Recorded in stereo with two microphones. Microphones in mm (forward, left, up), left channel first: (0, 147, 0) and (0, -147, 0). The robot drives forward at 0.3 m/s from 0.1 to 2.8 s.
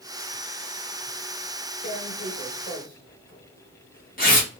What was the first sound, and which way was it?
Tearing paper, 35° left (ahead or behind).